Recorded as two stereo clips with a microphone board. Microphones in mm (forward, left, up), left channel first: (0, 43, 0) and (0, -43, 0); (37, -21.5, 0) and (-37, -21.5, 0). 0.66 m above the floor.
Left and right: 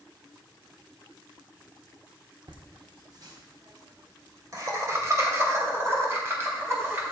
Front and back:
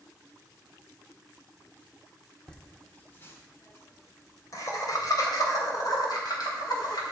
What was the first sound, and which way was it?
Laughter, 80° right.